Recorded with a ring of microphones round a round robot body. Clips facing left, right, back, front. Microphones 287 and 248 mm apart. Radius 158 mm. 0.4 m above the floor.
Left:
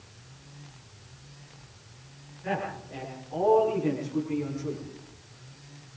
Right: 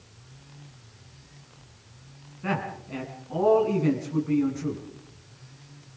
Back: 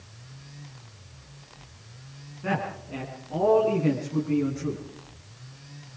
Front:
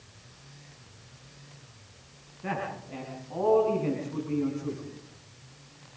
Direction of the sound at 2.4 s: 95° right.